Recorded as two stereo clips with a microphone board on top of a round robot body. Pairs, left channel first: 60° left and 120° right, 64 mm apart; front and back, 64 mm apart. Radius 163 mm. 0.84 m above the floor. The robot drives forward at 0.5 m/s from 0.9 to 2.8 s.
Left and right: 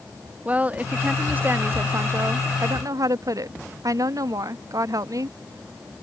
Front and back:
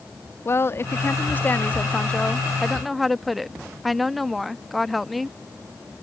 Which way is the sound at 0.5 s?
50° right.